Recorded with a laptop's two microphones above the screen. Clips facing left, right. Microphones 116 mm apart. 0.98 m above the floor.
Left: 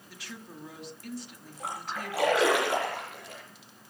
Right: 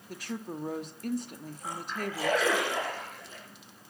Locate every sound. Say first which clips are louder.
0.1 s a woman speaking: right 8 dB; 45° right (ahead or behind), 1.5 m
1.6 s a splash: even; 75° left (ahead or behind), 8.5 m